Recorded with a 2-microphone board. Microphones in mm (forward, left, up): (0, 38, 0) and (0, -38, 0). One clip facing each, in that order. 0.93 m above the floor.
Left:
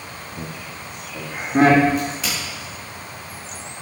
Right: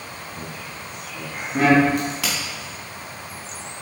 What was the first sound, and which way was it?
Laughter, 10° left (ahead or behind).